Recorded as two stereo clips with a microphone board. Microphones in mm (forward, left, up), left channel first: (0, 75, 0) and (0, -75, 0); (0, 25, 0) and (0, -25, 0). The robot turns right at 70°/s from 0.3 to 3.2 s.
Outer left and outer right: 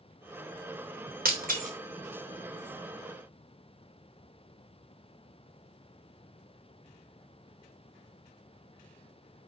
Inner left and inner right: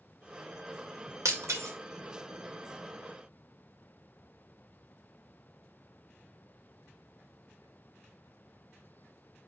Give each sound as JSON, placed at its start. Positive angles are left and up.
{"t": 1.2, "sound": "breaking glass", "side_deg": -85, "distance_m": 3.5}